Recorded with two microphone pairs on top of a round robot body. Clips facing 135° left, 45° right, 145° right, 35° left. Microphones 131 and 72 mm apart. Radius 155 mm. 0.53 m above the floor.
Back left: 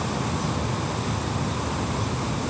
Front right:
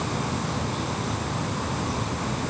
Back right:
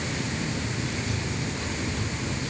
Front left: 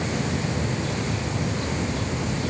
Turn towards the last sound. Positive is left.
No sound to turn to.